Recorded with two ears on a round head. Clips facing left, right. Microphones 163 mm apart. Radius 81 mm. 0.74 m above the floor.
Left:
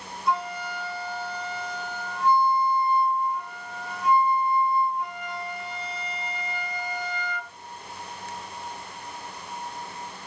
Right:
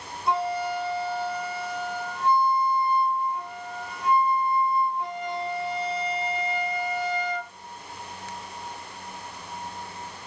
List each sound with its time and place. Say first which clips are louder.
0.3 s a flute: right 3 dB; 25° right (ahead or behind), 1.4 m